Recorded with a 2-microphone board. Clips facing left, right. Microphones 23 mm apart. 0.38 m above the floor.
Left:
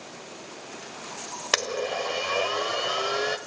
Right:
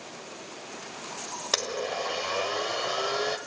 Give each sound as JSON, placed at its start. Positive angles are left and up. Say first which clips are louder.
{"t": 1.5, "sound": "a blender", "louder": "left 3 dB", "side_deg": 50, "distance_m": 1.3}